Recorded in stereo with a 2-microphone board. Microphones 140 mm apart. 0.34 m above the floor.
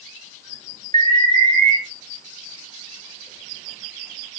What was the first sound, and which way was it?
An alarm, 55° right (ahead or behind).